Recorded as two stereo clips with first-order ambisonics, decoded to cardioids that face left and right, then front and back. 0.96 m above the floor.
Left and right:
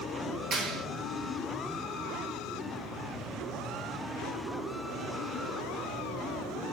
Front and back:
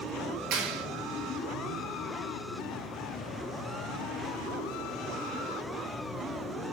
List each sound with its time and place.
0.5 s a clap: 150° right, 2.5 m